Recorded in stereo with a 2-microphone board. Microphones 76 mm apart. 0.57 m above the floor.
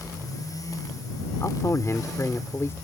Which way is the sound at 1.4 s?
40° left (ahead or behind).